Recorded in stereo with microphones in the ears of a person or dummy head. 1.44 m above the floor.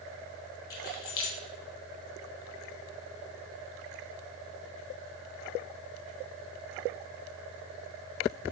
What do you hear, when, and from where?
0.7 s keys jangling: 25° left (ahead or behind), 0.6 m